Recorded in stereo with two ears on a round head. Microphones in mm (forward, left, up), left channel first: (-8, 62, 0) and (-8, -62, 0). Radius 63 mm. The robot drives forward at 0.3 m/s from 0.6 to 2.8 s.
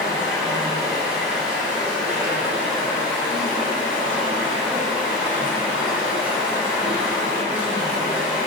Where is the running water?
10° right (ahead or behind), 3.5 m.